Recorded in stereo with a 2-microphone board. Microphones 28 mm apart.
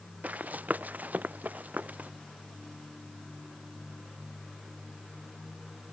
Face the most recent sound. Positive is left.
turn(degrees=-75)  # may be behind; listen again after turning